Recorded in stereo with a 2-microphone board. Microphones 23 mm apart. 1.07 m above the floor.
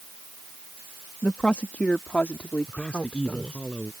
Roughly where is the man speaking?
Left.